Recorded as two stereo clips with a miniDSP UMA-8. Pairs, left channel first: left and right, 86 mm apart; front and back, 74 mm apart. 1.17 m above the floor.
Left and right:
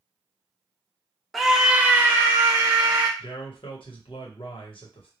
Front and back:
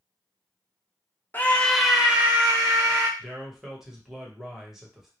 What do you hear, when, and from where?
1.3 s a scream: straight ahead, 0.5 m; by 3.1 s 140° right, 0.9 m
3.2 s a man speaking: 95° left, 0.9 m